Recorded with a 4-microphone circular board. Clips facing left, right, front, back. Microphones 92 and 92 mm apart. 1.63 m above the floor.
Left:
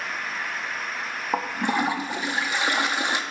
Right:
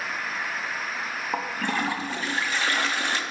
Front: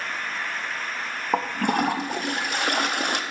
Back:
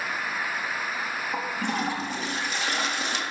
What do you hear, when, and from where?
1.3 s a toilet flushing: 20° left, 0.5 m